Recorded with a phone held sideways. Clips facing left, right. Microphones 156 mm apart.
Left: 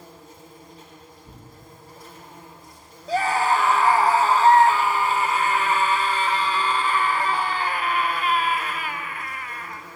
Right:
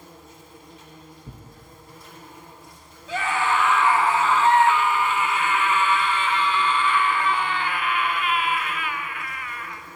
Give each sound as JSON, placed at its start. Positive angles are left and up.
{"t": 0.0, "sound": "an insect", "side_deg": 35, "distance_m": 2.5}
{"t": 1.2, "sound": "tearing paper", "side_deg": -65, "distance_m": 1.1}
{"t": 3.1, "sound": "a scream", "side_deg": 35, "distance_m": 0.6}